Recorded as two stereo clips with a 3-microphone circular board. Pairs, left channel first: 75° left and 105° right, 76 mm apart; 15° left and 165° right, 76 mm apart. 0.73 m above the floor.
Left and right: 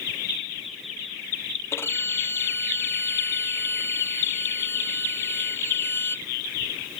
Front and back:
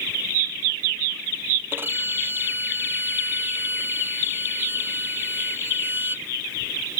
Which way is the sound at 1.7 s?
135° left.